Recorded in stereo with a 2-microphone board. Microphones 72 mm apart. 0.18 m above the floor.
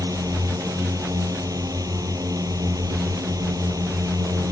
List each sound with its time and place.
0.0 s a drone: 55° right (ahead or behind)